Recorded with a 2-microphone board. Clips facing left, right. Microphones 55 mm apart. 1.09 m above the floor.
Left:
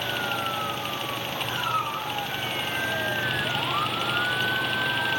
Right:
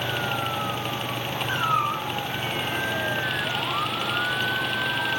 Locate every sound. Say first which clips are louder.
1.5 s a cat meowing: right 4 dB; 40° right (ahead or behind), 4 m